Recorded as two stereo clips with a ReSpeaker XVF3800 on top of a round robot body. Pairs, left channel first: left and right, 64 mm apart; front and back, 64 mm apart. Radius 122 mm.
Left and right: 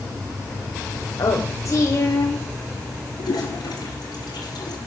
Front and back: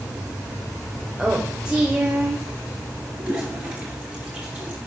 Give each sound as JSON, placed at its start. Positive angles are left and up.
{"t": 1.2, "sound": "a woman speaking", "azimuth_deg": 100, "distance_m": 1.7}
{"t": 3.2, "sound": "a toilet flushing", "azimuth_deg": 105, "distance_m": 2.5}